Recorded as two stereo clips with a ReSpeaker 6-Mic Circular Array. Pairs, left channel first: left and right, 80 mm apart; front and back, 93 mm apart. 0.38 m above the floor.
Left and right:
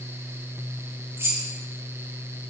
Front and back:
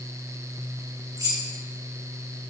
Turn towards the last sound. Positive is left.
turn(degrees=-140)